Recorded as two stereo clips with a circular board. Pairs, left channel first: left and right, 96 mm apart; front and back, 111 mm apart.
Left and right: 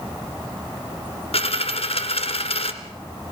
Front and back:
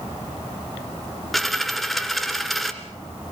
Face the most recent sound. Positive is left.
turn(degrees=90)